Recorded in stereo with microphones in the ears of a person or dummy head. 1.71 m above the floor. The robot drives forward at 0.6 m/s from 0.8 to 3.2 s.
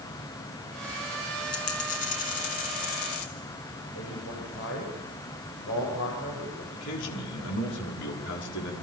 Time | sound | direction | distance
1.5 | a dropped coin | 45° left (ahead or behind) | 4 m
4.0 | a man speaking | 60° left (ahead or behind) | 9 m
6.7 | a man speaking | 60° left (ahead or behind) | 5.5 m